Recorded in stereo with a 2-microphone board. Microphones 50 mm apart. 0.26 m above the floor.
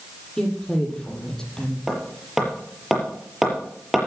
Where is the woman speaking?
10° left (ahead or behind), 6 m.